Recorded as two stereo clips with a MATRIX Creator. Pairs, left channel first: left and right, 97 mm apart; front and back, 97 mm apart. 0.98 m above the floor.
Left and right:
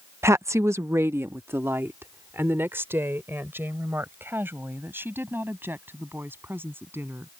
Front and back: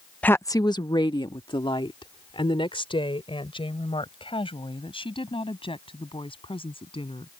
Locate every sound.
0.2 s a woman speaking: 65° right; by 7.3 s 25° right